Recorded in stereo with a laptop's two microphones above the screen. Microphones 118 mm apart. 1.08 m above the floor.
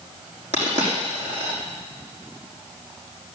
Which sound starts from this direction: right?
A dropped coin, at 0.5 s.